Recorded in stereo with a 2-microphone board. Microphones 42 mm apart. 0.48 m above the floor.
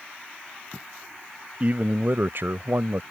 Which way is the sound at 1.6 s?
40° right (ahead or behind).